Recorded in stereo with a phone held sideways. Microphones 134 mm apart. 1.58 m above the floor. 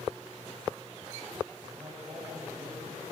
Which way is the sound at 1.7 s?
35° right (ahead or behind).